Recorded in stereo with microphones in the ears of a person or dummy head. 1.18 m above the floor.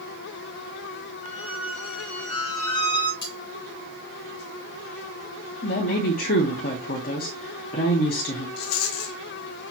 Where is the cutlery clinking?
25° left (ahead or behind), 1.0 m.